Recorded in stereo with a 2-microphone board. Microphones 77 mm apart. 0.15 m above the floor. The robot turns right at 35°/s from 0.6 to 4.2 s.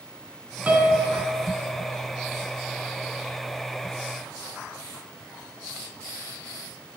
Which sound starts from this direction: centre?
A piano, at 0.7 s.